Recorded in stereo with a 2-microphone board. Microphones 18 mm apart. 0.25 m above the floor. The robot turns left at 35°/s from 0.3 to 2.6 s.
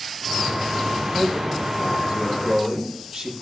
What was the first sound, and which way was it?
A man speaking, 100° right.